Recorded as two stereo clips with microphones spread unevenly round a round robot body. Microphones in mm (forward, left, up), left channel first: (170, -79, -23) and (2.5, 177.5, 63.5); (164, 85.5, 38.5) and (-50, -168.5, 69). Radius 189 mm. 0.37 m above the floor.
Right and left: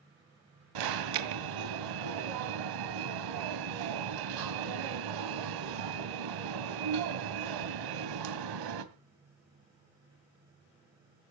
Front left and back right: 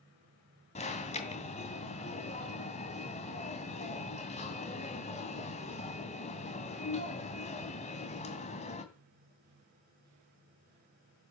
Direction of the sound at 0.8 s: 120° left.